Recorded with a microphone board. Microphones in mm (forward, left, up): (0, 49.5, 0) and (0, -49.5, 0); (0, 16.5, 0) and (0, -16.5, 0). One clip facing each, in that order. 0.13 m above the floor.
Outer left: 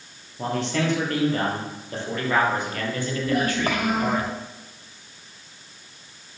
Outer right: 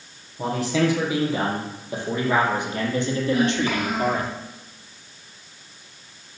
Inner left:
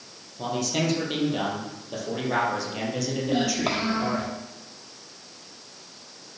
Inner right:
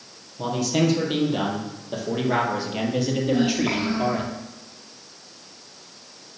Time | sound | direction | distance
0.4 | a man speaking | centre (ahead or behind) | 4 m
3.3 | a child speaking | 55° left (ahead or behind) | 3 m